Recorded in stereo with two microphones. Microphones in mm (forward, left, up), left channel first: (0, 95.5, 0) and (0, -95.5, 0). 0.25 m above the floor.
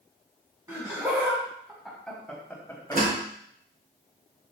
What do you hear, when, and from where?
0.7 s laughter: 20° right (ahead or behind), 2 m; by 3.0 s 20° left (ahead or behind), 1.5 m
2.9 s a door slam: 50° right (ahead or behind), 2.5 m